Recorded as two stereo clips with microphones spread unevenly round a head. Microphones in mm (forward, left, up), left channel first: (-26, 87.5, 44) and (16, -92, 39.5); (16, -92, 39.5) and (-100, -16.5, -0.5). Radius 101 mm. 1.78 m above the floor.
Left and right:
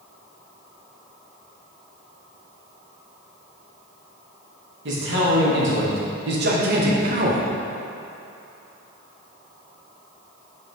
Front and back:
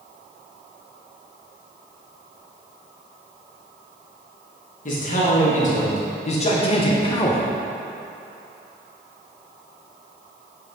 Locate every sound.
4.8 s a man speaking: 45° right, 1.9 m; by 7.5 s 40° right, 0.7 m